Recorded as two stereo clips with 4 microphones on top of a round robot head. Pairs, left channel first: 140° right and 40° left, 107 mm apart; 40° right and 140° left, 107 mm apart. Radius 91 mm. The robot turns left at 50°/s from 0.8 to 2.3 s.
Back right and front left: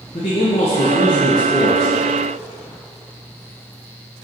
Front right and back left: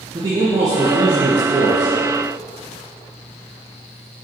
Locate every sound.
0.1 s a man speaking: 160° right, 1.8 m; by 1.9 s 145° left, 1.8 m